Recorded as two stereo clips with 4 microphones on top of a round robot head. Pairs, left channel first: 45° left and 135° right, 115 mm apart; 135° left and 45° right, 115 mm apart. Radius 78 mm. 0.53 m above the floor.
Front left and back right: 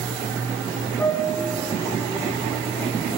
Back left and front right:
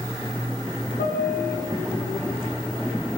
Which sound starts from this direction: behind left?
A piano, at 1.0 s.